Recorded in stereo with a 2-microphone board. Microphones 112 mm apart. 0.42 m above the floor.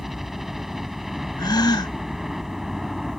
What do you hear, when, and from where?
0.0 s a helicopter: centre (ahead or behind)
1.4 s a gasp: 40° left (ahead or behind)